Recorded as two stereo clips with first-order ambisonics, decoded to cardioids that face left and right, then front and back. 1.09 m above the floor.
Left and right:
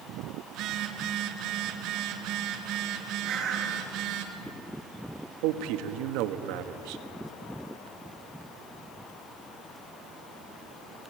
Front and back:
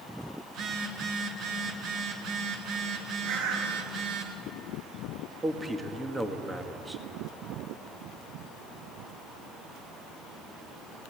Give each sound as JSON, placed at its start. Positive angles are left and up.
{"t": 0.5, "sound": "a phone buzzing", "azimuth_deg": -130, "distance_m": 2.5}
{"t": 3.2, "sound": "a bird", "azimuth_deg": -155, "distance_m": 6.0}
{"t": 5.4, "sound": "a man speaking", "azimuth_deg": -100, "distance_m": 1.6}